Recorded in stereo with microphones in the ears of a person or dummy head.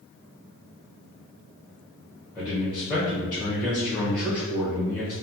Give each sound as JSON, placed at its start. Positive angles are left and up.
{"t": 2.4, "sound": "a man speaking", "side_deg": 5, "distance_m": 0.9}